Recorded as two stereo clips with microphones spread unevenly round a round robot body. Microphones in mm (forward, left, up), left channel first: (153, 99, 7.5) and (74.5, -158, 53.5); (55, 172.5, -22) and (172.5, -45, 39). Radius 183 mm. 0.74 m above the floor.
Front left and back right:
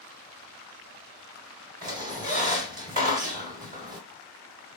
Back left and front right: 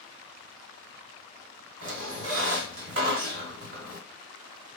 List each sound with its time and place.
1.8 s a squeak: 55° right, 1.0 m